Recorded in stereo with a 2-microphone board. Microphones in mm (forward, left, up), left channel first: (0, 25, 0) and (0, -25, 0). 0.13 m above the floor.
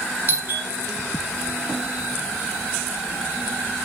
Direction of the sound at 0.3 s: 40° right (ahead or behind).